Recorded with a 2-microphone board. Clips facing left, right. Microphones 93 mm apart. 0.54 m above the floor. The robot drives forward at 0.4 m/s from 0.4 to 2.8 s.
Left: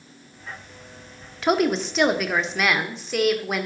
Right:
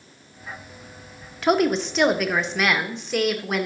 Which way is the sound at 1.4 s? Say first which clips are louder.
Right 1 dB; centre (ahead or behind).